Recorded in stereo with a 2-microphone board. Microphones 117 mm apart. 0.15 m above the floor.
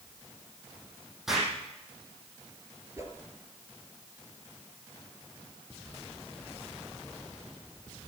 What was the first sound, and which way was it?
An explosion, 5° right (ahead or behind).